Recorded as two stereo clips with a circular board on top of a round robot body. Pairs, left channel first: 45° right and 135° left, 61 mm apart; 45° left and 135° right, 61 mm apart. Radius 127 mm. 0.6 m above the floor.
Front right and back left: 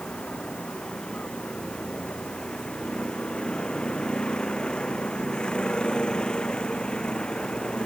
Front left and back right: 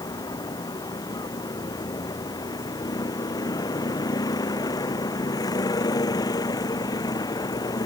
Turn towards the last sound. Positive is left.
turn(degrees=30)